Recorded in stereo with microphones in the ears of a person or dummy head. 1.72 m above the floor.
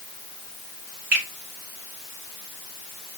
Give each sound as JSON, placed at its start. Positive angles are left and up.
{"t": 1.1, "sound": "a finger snap", "side_deg": -45, "distance_m": 1.2}